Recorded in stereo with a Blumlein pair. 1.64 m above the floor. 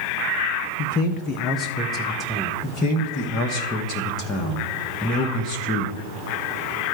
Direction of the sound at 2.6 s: 25° left.